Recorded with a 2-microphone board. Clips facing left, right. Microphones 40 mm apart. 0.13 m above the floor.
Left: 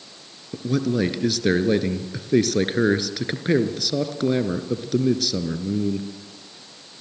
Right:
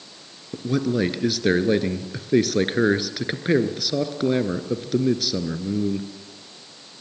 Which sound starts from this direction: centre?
A man speaking, at 0.5 s.